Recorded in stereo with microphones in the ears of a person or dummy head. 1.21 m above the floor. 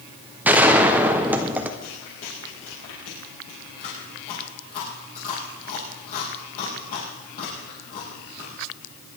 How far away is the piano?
I don't hear a piano.